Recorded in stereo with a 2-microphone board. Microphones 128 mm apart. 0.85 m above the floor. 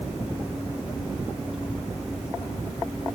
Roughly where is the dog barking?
No dog barking in this recording.